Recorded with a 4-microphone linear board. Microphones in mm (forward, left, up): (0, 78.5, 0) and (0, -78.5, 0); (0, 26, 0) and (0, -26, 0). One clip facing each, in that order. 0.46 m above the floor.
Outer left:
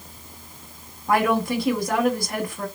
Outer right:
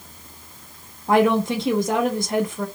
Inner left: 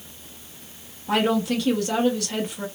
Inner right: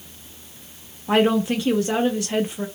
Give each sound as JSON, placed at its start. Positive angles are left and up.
{"t": 1.1, "sound": "a woman speaking", "side_deg": -25, "distance_m": 0.8}